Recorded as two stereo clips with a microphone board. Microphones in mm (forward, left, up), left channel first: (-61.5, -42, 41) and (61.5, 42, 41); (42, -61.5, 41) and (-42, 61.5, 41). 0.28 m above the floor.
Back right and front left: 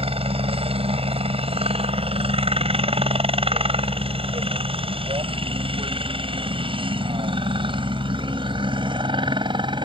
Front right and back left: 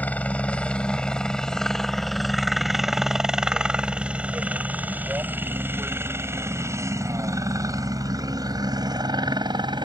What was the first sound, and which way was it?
A helicopter, 20° left.